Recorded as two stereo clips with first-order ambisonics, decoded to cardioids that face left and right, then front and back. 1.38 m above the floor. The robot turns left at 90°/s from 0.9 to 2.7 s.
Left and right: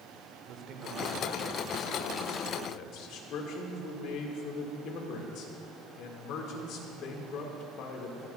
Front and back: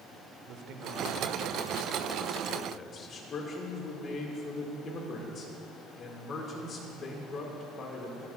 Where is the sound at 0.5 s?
135° right, 1.0 m; by 3.2 s 60° left, 1.0 m.